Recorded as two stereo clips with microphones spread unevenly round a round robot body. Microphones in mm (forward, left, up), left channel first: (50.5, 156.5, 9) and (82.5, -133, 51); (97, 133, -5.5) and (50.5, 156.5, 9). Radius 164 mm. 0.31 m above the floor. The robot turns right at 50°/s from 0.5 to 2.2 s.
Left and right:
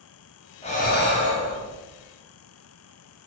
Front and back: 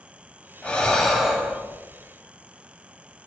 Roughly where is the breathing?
Ahead left.